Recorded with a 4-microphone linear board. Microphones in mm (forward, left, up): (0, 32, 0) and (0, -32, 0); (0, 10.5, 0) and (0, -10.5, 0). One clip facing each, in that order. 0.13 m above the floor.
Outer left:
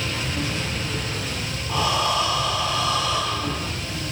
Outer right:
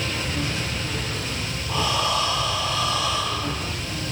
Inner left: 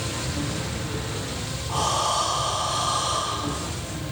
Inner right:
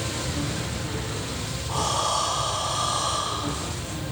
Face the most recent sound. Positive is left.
turn(degrees=0)  # may be behind; listen again after turning